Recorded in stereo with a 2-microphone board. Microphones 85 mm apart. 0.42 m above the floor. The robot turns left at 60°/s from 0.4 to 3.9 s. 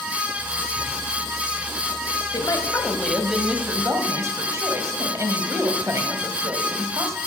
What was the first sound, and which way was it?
A woman speaking, 55° left.